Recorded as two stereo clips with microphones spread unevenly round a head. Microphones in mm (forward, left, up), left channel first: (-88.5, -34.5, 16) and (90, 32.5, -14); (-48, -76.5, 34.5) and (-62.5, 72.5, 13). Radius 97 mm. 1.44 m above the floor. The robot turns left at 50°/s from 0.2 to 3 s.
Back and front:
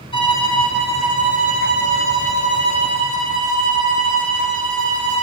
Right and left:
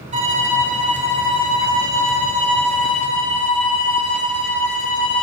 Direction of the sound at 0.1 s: 135° left.